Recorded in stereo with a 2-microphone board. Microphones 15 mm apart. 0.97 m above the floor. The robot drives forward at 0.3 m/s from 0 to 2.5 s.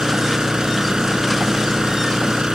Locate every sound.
0.0 s an engine running: 70° right (ahead or behind); by 2.5 s 75° right (ahead or behind)